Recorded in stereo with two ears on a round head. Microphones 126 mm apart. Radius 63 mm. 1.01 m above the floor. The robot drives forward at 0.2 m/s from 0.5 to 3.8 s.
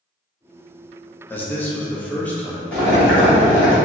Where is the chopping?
I don't hear chopping.